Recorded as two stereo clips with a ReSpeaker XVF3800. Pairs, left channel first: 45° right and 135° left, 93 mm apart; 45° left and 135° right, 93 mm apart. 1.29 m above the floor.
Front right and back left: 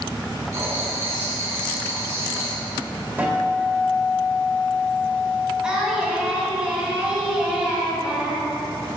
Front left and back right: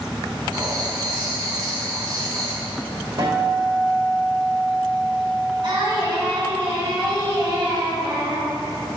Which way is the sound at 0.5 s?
175° right.